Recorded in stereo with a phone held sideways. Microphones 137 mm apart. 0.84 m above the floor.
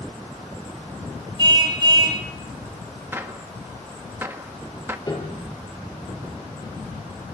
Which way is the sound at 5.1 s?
30° left (ahead or behind).